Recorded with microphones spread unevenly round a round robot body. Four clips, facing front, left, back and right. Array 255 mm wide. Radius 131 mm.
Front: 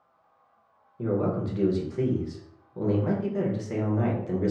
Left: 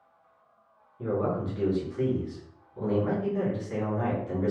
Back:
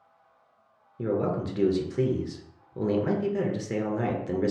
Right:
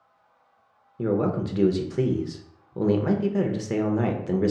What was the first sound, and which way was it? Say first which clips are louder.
A man speaking: right 4 dB, even; 115° right.